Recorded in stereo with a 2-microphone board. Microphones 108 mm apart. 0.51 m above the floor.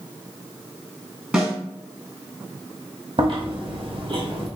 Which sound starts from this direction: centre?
A snare drum, at 1.3 s.